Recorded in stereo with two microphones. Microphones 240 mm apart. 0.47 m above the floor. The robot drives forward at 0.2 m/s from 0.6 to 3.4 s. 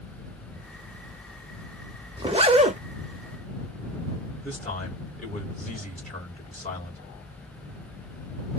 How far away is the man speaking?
About 2 m.